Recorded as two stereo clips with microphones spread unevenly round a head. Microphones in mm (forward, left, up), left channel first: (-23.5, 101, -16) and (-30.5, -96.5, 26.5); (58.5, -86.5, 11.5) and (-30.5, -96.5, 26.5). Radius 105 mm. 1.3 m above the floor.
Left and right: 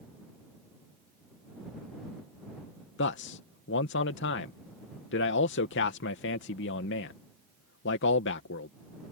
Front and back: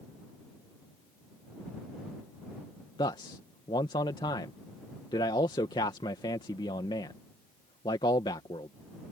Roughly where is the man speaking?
Ahead left.